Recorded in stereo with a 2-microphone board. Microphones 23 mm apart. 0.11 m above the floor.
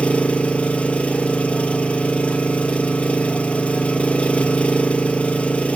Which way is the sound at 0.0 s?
60° left (ahead or behind).